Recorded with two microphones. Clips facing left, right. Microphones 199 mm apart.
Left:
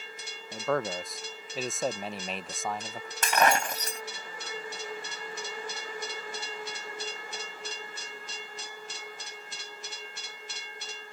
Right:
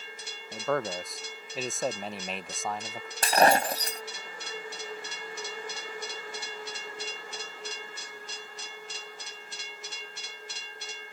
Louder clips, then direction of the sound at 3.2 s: Right 3 dB; 35° right (ahead or behind).